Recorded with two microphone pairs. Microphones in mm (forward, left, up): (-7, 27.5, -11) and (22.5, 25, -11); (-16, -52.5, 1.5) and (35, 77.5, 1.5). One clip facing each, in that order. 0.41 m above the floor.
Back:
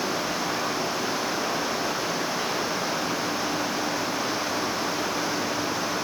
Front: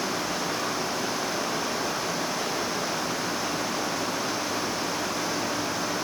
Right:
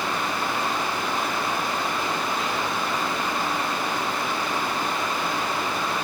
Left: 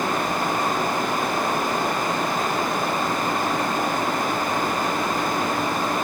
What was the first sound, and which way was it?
Only background noise.